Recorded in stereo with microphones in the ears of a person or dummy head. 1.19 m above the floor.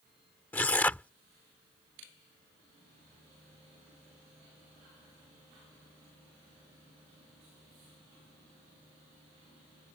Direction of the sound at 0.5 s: 5° left (ahead or behind).